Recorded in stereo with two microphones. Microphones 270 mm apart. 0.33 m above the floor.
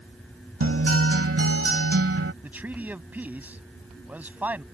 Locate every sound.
0.6 s a guitar: 50° right (ahead or behind)
2.4 s a man speaking: 5° right (ahead or behind)